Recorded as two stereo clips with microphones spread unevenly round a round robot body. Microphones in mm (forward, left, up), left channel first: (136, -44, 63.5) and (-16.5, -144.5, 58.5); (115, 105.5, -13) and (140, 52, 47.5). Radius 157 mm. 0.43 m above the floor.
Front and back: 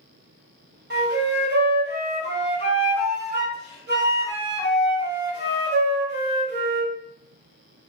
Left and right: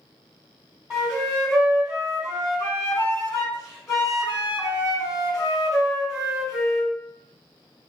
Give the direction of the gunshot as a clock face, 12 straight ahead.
No gunshot in this recording.